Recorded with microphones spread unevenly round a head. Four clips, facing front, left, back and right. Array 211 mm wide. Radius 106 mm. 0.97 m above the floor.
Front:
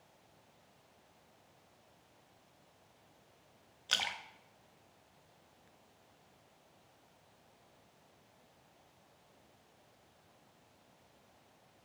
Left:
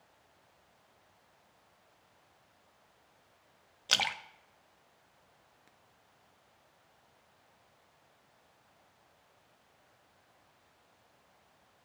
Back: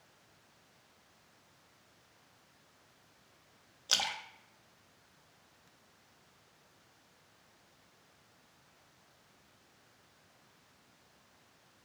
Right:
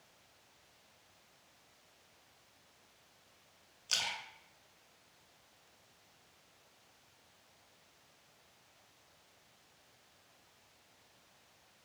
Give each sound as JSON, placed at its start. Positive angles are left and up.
{"t": 3.9, "sound": "a splash", "azimuth_deg": 115, "distance_m": 0.5}